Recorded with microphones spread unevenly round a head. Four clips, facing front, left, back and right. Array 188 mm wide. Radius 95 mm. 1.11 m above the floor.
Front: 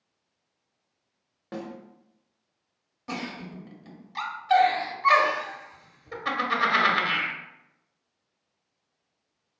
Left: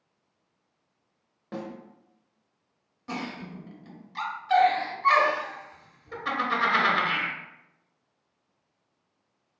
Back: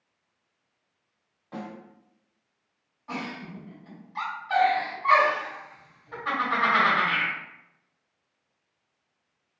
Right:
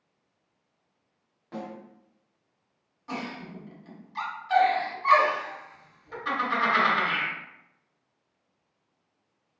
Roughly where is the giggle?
Ahead.